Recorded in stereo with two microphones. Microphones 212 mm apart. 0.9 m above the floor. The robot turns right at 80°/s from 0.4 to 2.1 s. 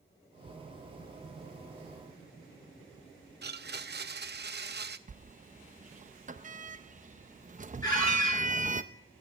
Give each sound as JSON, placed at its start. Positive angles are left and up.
{"t": 3.4, "sound": "a blender", "side_deg": -50, "distance_m": 0.5}
{"t": 5.1, "sound": "a sliding door", "side_deg": -35, "distance_m": 0.5}
{"t": 7.8, "sound": "a squeak", "side_deg": 15, "distance_m": 9.0}